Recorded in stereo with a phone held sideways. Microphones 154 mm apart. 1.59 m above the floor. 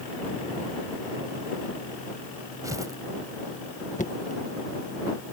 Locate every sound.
2.6 s tearing paper: 20° right (ahead or behind)
4.0 s knocking: 55° left (ahead or behind)